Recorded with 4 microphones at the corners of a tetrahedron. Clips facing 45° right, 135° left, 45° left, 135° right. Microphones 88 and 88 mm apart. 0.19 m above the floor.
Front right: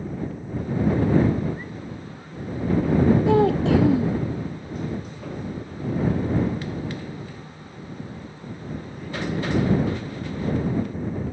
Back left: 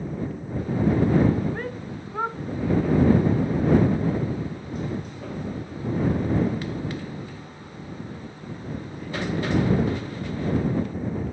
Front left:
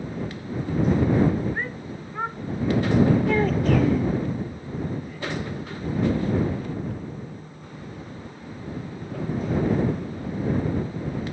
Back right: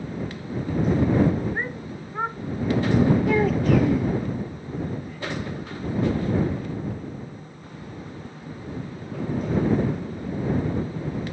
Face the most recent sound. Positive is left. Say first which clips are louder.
# front right 3 dB, back right 1 dB
turn(degrees=-50)